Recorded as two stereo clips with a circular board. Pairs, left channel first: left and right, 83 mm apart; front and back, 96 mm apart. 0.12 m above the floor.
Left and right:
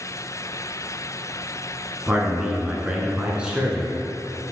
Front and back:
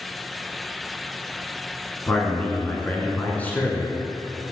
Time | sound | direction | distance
2.1 | a man speaking | 35° right | 1.1 m